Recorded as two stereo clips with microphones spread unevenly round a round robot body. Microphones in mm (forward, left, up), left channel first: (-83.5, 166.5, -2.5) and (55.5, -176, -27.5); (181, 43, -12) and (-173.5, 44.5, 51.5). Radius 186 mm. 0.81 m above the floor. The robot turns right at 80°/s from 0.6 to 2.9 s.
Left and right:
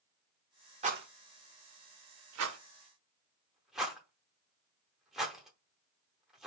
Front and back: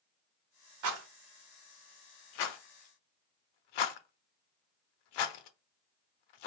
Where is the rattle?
145° right, 0.6 m; by 6.5 s 25° left, 0.6 m.